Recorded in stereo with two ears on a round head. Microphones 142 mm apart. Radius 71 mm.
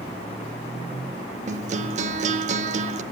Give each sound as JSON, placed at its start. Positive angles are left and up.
{"t": 1.5, "sound": "a guitar", "side_deg": -45, "distance_m": 0.6}